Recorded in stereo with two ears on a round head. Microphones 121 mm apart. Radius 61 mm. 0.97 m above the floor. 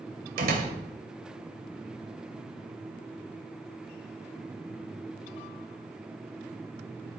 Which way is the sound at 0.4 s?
80° right.